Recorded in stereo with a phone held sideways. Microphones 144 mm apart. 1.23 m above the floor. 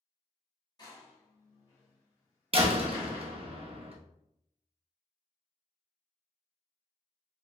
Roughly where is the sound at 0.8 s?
Left.